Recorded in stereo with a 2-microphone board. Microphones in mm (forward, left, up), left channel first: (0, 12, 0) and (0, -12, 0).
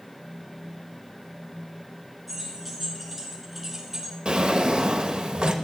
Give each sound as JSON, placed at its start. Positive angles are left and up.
{"t": 2.3, "sound": "keys jangling", "side_deg": 5, "distance_m": 3.5}
{"t": 4.2, "sound": "a drawer", "side_deg": -45, "distance_m": 1.0}